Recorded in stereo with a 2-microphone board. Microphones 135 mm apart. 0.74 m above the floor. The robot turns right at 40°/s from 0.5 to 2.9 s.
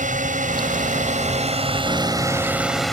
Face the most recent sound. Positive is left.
turn(degrees=0)